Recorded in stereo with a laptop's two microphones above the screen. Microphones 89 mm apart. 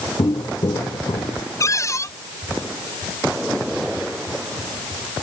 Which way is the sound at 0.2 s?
55° left (ahead or behind).